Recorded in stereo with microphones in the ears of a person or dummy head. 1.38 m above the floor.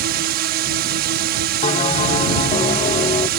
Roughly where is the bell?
Left.